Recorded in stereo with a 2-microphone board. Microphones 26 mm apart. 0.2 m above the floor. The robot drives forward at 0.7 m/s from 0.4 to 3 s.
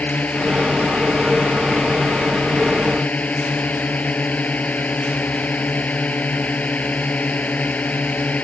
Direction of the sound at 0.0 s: 70° left (ahead or behind).